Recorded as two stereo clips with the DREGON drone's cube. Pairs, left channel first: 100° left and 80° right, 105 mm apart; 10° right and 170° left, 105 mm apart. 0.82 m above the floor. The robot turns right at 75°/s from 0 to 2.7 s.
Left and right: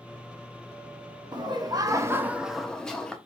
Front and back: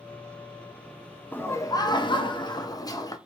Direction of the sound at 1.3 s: 80° right.